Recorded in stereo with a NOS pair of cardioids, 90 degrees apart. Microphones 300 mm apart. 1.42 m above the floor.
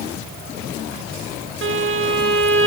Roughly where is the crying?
No crying in this recording.